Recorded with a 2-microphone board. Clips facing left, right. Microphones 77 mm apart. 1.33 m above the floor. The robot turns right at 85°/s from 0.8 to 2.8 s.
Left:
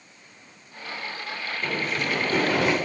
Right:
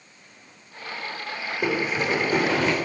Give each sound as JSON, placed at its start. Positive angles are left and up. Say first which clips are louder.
{"t": 1.6, "sound": "running footsteps", "louder": "right 4 dB", "side_deg": -65, "distance_m": 4.5}